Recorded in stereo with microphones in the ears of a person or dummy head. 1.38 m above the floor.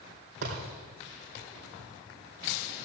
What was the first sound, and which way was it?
A thud, 60° right (ahead or behind).